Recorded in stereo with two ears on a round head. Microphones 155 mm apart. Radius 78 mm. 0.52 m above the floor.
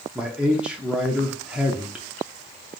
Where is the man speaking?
5° right (ahead or behind), 0.6 m.